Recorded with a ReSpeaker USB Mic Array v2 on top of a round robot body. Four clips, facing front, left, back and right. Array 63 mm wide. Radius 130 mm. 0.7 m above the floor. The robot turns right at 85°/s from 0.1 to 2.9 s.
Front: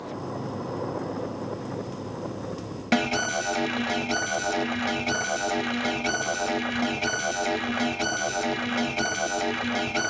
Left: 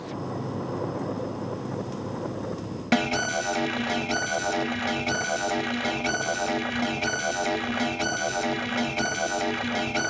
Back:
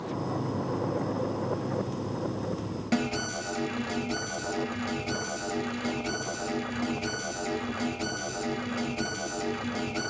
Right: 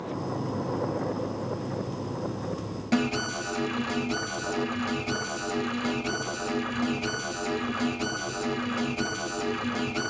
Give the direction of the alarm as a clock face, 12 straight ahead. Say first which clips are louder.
Left 3 dB, front 6 dB; 10 o'clock.